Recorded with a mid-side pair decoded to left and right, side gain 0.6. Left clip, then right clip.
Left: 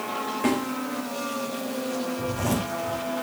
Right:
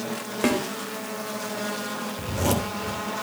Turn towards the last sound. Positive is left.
turn(degrees=-50)